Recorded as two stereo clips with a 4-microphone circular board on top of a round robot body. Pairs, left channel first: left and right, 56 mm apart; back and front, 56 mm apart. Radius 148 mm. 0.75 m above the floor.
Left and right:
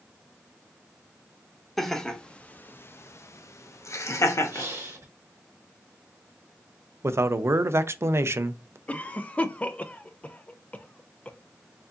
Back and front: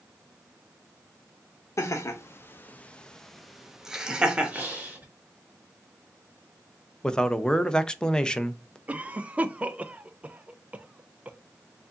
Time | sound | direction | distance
1.8 | laughter | 175° left | 0.9 m
4.5 | breathing | 60° right | 1.9 m
7.0 | a man speaking | 105° right | 0.6 m
8.9 | a cough | 45° left | 0.6 m